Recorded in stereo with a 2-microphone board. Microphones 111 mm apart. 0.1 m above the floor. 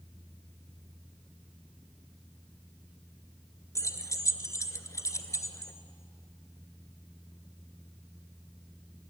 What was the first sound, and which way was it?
Keys jangling, 30° left (ahead or behind).